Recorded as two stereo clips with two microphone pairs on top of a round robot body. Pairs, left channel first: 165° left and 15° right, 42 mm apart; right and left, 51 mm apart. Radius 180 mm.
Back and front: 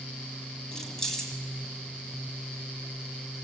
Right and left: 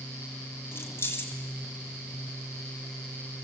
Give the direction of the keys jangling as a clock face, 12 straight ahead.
4 o'clock.